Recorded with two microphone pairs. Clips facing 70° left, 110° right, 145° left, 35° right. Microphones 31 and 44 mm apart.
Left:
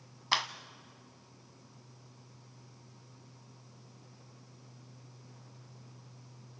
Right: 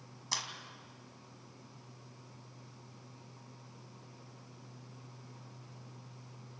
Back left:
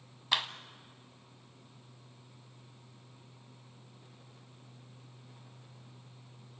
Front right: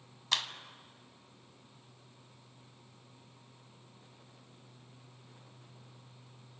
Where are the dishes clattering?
I don't hear dishes clattering.